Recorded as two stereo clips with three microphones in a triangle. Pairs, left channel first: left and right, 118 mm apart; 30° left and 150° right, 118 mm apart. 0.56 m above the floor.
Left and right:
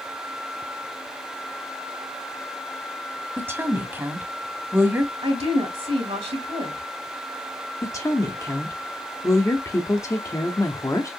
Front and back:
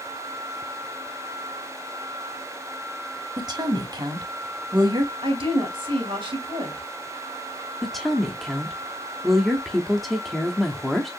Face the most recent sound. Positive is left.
turn(degrees=120)